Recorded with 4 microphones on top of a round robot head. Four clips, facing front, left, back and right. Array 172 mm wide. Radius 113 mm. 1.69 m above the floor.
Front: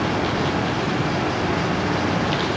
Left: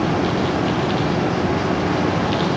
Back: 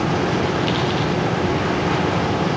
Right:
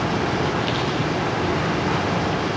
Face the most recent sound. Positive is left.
No sound to turn to.